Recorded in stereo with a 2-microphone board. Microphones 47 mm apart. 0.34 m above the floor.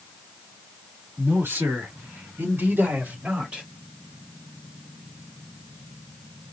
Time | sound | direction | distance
1.2 | a man speaking | 60° right (ahead or behind) | 3.5 m